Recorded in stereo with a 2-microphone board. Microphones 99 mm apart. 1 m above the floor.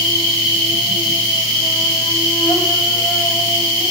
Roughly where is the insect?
Left.